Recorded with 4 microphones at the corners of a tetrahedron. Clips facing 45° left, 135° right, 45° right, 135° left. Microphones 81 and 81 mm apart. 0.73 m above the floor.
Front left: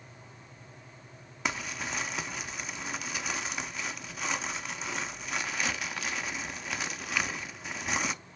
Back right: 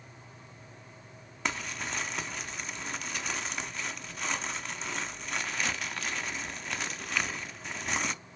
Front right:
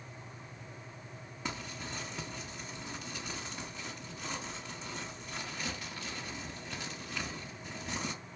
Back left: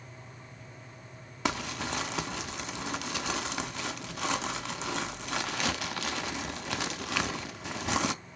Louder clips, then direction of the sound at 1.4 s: Even, back left 9 dB; 130° left.